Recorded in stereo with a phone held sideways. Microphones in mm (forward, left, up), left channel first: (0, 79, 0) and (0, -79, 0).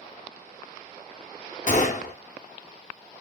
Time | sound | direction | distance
1.7 | a gunshot | 50° left (ahead or behind) | 0.7 m